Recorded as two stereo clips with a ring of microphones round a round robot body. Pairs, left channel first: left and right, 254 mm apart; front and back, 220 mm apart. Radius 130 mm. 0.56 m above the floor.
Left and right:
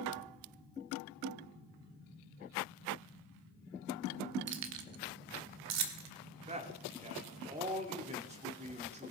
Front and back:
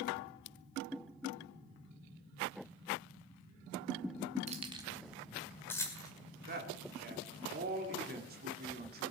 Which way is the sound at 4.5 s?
125° right.